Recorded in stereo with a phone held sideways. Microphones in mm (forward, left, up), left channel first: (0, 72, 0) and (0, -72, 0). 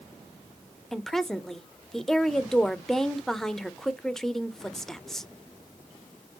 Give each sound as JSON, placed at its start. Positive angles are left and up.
{"t": 0.9, "sound": "a woman speaking", "side_deg": 5, "distance_m": 0.6}